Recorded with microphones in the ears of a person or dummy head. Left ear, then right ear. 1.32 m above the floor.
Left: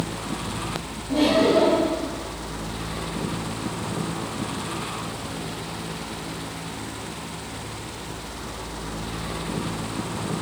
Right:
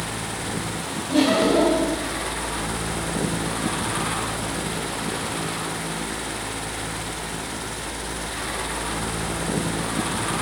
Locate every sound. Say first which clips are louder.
1.1 s laughter: even; 65° right (ahead or behind), 4 m